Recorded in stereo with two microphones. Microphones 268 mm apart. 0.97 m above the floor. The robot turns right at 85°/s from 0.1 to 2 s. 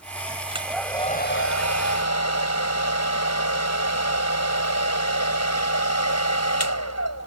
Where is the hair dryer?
25° right; by 7.3 s 105° left.